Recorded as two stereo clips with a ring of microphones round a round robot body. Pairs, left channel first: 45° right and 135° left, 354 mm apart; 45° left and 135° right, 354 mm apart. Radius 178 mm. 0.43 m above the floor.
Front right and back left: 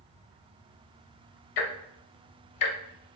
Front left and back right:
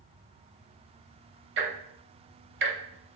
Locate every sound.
1.6 s ticking: 75° right, 0.6 m